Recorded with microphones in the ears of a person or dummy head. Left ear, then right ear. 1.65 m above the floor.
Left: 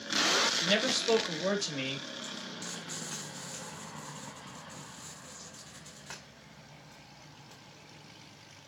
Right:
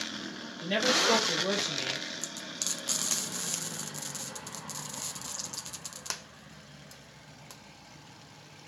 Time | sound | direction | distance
0.6 | a man speaking | 45° left (ahead or behind) | 4 m
2.2 | frying | 85° right | 0.7 m